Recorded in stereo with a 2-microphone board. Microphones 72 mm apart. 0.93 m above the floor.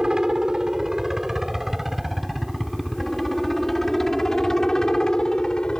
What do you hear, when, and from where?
0.0 s a helicopter: 10° right (ahead or behind); by 5.8 s 10° left (ahead or behind)